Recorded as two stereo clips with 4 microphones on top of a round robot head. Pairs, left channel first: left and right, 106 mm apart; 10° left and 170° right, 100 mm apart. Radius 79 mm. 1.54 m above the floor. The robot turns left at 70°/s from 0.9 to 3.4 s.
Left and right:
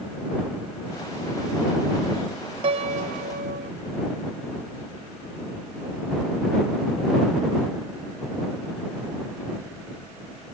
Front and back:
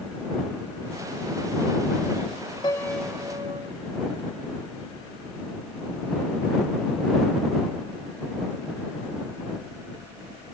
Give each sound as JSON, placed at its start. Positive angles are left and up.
{"t": 2.6, "sound": "a piano", "azimuth_deg": -55}